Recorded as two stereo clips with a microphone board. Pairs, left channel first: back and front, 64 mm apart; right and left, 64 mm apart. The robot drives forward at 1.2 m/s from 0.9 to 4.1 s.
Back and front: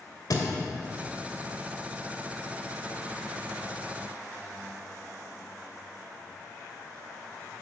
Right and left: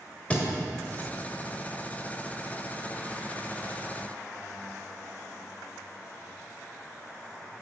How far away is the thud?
About 1.5 m.